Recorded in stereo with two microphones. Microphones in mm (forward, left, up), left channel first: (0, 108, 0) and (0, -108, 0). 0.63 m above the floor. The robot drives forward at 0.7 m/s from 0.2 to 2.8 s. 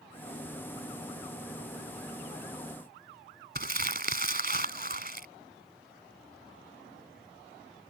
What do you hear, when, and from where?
3.5 s crumpling: 45° right (ahead or behind)